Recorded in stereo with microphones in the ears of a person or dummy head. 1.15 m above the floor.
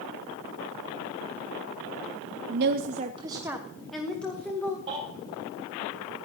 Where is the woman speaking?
60° right (ahead or behind), 0.7 m; by 4.8 s 15° left (ahead or behind), 1.6 m.